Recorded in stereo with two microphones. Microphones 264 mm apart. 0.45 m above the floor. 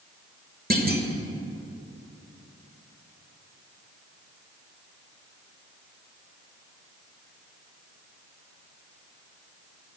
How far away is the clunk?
About 1.5 m.